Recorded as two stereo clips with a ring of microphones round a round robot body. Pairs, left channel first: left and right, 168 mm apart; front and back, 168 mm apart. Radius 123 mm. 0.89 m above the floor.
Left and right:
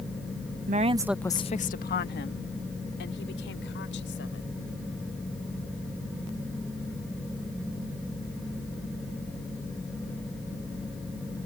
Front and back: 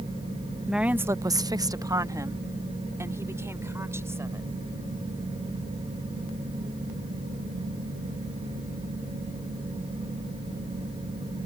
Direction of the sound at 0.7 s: 95° right.